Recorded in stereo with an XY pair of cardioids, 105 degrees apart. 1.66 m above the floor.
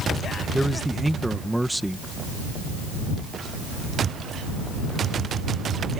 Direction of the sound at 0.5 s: 5° right.